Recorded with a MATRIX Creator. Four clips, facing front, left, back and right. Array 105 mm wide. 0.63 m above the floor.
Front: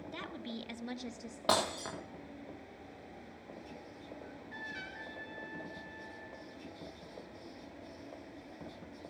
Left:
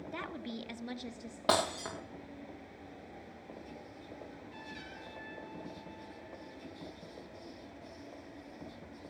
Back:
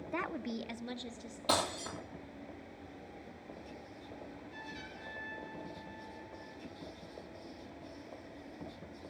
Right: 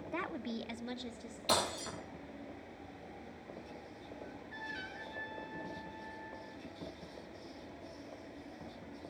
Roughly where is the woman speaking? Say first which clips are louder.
Right 3 dB, back 7 dB; behind.